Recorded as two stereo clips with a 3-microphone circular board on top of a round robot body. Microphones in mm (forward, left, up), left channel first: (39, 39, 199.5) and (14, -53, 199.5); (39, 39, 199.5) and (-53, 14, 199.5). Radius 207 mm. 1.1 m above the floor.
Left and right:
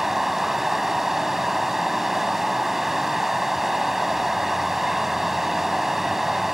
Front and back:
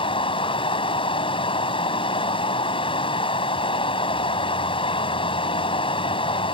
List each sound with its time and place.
0.0 s running water: 20° right